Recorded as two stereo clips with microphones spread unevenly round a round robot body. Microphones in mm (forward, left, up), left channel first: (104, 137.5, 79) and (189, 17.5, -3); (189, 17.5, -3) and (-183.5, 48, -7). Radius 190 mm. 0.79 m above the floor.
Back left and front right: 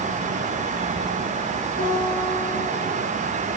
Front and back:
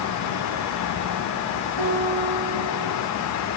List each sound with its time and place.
1.8 s a guitar: 170° left, 9.5 m